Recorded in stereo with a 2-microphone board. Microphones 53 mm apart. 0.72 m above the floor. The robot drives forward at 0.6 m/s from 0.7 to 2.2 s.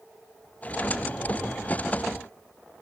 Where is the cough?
No cough in this recording.